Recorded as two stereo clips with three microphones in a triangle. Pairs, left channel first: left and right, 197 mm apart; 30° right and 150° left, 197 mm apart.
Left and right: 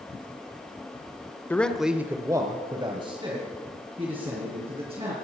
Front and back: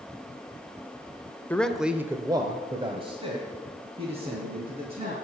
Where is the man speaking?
30° left, 0.9 m; by 5.1 s 150° right, 4 m.